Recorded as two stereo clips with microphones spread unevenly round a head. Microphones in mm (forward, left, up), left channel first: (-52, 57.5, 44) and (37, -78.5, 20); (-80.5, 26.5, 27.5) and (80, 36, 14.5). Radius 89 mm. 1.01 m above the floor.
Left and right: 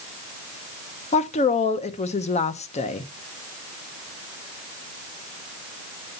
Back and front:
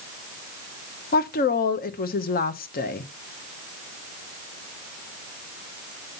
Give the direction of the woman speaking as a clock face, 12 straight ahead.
6 o'clock.